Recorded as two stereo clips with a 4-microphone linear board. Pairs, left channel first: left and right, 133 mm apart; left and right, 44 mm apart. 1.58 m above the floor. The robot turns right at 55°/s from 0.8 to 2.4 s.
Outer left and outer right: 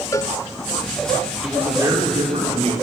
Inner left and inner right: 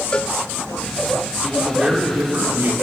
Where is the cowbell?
25° left (ahead or behind), 0.6 m.